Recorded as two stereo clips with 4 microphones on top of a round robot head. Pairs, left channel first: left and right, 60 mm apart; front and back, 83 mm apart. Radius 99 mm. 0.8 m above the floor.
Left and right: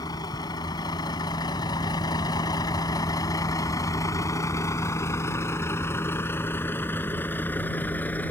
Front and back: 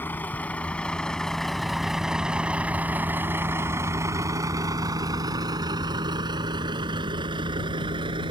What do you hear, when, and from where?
0.0 s a vehicle: 65° left; by 8.3 s 155° left